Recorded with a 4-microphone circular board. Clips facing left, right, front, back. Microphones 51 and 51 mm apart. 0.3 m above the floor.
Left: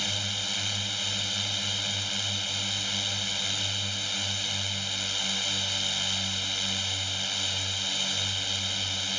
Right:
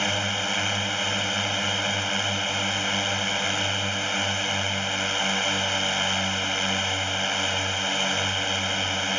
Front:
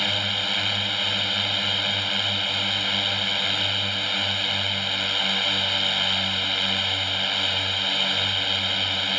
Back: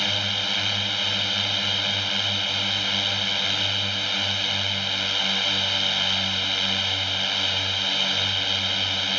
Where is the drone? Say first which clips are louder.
Right 8 dB, front 1 dB; 85° right.